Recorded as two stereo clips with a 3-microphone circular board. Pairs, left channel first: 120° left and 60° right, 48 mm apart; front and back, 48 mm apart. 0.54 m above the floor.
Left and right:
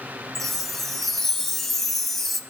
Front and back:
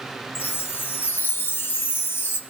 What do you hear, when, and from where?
0.3 s a chime: 35° left, 0.7 m